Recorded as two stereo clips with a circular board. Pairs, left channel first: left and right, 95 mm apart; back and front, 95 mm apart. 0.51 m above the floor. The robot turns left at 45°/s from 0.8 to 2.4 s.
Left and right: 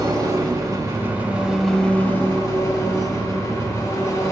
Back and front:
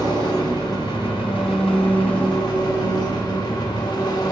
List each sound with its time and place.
0.0 s an engine running: 140° right, 1.4 m; by 4.3 s 145° left, 1.4 m